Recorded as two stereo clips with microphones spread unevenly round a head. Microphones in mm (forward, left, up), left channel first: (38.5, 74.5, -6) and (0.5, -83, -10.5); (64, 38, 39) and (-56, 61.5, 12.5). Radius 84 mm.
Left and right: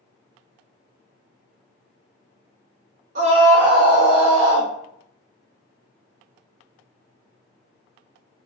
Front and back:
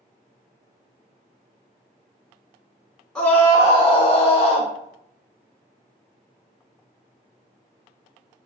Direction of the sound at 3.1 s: 105° right.